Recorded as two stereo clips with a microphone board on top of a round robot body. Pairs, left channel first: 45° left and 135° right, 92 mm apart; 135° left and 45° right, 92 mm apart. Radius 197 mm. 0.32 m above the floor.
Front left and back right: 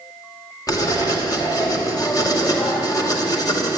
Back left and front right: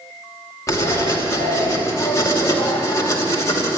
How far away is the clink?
I don't hear a clink.